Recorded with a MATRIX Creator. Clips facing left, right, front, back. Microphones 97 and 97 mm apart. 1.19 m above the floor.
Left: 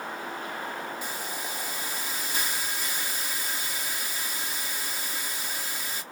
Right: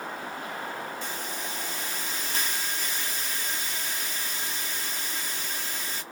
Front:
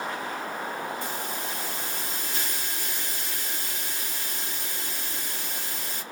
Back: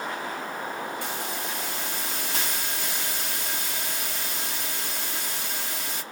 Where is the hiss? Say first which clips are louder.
Even, back 1 dB; 170° left, 1.5 m.